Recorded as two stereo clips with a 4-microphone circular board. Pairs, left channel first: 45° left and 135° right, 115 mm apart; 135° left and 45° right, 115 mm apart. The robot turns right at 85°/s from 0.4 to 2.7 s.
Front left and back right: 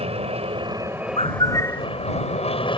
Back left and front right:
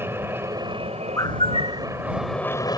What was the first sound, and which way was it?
An aircraft, 115° right.